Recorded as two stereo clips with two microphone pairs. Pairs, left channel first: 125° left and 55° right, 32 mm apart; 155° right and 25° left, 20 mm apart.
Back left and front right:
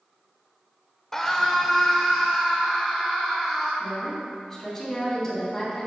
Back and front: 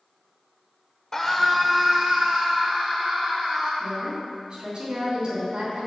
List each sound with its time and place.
1.1 s a scream: 165° right, 1.2 m; by 3.7 s 30° left, 3 m
3.8 s a woman speaking: 50° left, 3 m